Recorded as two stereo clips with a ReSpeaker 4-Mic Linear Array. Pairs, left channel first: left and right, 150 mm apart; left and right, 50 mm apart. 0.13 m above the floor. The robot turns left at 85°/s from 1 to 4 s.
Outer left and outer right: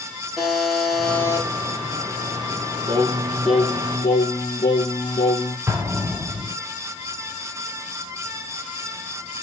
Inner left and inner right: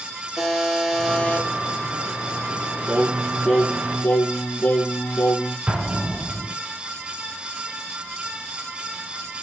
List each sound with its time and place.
0.4 s a buzzer: straight behind, 2.5 m; by 1.5 s 140° left, 2.5 m
2.9 s singing: 130° right, 2 m; by 5.6 s 135° left, 2 m
5.7 s an explosion: 20° right (ahead or behind), 3 m